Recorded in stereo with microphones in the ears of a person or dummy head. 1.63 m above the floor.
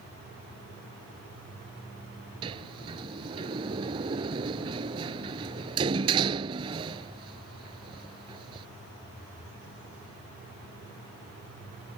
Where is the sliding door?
30° right (ahead or behind).